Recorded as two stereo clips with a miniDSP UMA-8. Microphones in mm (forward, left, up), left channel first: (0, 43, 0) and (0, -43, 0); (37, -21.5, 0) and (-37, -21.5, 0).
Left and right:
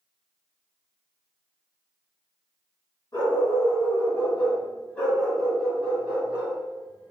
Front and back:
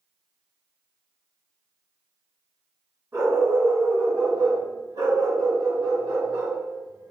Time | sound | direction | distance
3.1 | a dog barking | 130° left | 1.6 m